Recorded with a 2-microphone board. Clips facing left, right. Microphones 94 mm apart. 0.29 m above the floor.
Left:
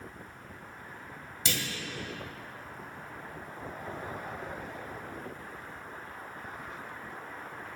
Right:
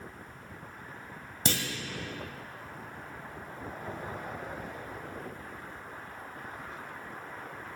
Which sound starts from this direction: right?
A clunk, at 1.4 s.